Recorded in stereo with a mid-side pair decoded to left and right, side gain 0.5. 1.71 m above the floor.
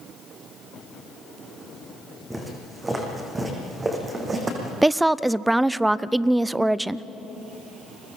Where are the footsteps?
15° right, 6 m; by 4.7 s 25° right, 5.5 m.